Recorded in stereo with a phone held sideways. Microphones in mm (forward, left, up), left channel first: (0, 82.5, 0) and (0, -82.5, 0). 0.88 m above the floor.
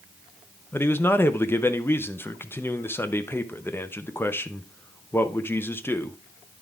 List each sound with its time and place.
0.7 s a man speaking: 15° left (ahead or behind), 0.6 m